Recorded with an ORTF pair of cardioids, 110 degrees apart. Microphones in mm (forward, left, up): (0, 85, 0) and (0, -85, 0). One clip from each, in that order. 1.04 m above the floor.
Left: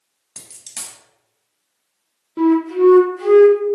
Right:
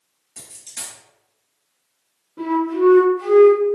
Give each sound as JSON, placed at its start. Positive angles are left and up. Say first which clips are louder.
{"t": 0.4, "sound": "a dropped coin", "louder": "left 1 dB", "azimuth_deg": 60, "distance_m": 1.0}
{"t": 2.4, "sound": "a flute", "louder": "left 4 dB", "azimuth_deg": 65, "distance_m": 0.6}